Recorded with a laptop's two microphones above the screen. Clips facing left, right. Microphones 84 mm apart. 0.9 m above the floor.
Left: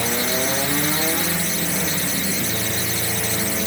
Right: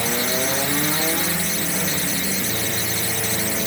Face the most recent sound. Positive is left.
No sound to turn to.